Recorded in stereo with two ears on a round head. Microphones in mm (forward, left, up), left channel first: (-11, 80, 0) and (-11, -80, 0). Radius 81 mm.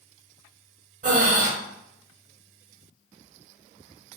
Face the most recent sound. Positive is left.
turn(degrees=-45)  # may be behind; listen again after turning